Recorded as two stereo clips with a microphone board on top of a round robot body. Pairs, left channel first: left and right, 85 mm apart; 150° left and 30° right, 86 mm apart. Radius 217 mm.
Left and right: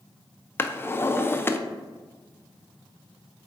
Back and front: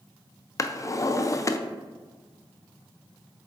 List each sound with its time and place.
0.6 s a drawer: 135° left, 0.6 m